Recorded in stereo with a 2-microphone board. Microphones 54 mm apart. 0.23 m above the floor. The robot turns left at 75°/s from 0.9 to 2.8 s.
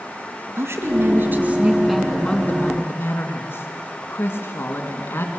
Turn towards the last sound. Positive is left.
turn(degrees=120)